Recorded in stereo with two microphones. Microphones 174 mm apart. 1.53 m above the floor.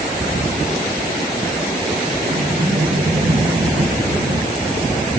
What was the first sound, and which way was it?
A sliding door, 55° right (ahead or behind).